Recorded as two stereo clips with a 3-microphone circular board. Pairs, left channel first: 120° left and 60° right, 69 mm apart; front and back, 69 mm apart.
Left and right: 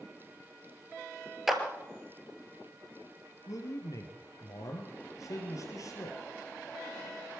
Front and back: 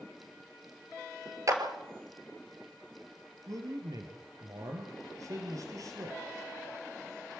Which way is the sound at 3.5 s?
150° left.